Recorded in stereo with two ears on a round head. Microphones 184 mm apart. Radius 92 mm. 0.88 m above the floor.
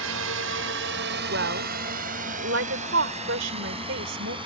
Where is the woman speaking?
65° right (ahead or behind).